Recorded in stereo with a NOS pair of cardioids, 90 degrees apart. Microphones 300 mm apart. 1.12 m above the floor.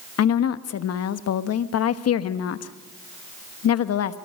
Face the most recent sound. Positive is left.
turn(degrees=60)